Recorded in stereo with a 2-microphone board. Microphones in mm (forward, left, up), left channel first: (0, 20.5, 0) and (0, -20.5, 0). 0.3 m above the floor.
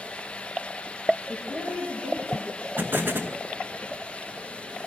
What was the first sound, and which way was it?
A woman speaking, 75° right (ahead or behind).